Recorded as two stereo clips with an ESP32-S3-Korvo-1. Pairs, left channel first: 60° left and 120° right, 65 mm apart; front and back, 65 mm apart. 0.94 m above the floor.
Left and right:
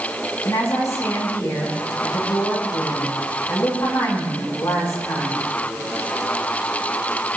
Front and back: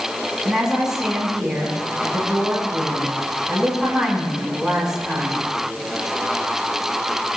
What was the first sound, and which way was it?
A woman speaking, 100° left.